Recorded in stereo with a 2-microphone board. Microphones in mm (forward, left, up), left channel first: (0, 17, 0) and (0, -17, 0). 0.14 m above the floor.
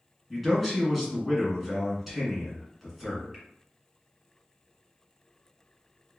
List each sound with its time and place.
0.3 s a man speaking: centre (ahead or behind), 1.3 m